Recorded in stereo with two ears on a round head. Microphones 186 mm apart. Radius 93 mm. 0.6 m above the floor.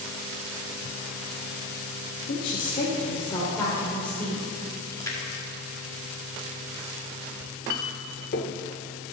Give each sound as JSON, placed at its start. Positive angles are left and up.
{"t": 2.3, "sound": "a woman speaking", "side_deg": 50, "distance_m": 1.3}
{"t": 4.9, "sound": "a splash", "side_deg": 15, "distance_m": 1.5}
{"t": 7.4, "sound": "a clink", "side_deg": 45, "distance_m": 0.8}